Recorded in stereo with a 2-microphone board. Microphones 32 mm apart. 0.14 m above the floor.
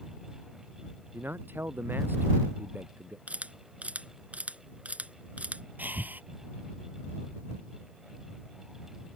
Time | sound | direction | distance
1.1 | a man speaking | 85° right | ?
3.3 | a camera shutter | 45° right (ahead or behind) | ?
5.8 | breathing | 65° right (ahead or behind) | ?